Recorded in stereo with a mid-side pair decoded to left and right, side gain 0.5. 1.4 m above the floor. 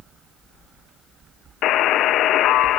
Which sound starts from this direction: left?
A buzzer, at 1.6 s.